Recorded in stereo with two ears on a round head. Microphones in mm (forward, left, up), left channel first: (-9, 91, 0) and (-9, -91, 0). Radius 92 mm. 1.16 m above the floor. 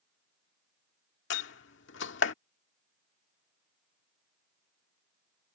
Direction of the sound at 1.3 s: 60° left (ahead or behind).